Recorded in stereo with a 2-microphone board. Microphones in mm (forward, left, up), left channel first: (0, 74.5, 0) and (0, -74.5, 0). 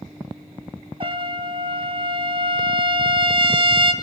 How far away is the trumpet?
About 1.3 m.